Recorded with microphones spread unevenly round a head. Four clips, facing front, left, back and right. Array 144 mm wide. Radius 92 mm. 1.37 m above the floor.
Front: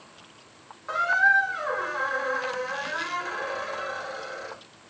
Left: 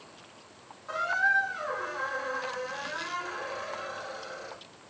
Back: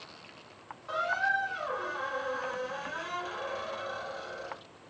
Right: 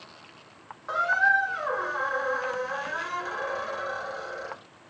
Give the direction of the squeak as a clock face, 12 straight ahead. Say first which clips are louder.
Right 4 dB, front 8 dB; 2 o'clock.